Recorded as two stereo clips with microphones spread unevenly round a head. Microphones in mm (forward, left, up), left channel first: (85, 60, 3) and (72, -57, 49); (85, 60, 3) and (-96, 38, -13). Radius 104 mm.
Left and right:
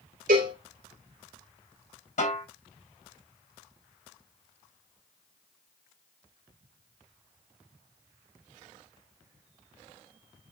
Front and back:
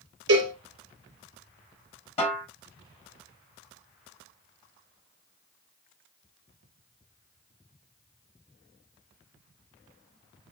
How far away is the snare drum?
About 5.5 m.